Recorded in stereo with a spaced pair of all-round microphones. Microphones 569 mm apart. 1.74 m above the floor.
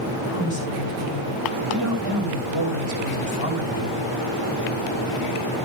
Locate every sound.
0.3 s a woman speaking: 75° left (ahead or behind), 8.5 m